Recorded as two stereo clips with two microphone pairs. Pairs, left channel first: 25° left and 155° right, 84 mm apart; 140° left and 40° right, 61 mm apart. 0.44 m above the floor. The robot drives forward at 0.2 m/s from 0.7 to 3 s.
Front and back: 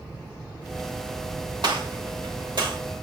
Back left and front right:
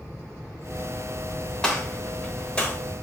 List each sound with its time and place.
1.6 s a gunshot: 145° right, 0.8 m; by 2.8 s 155° right, 1.0 m